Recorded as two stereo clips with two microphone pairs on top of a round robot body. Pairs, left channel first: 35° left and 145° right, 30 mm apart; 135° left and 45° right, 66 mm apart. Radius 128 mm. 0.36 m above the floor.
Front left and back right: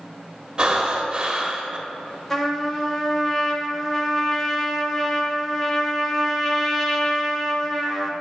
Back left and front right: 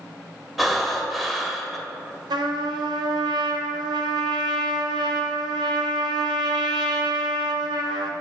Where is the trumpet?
40° right, 0.7 m.